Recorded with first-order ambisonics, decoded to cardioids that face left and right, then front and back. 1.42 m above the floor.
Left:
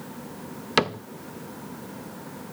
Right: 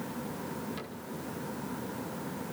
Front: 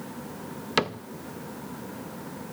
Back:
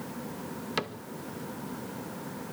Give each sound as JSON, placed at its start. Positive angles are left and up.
{"t": 0.8, "sound": "a cupboard door", "azimuth_deg": 65, "distance_m": 0.5}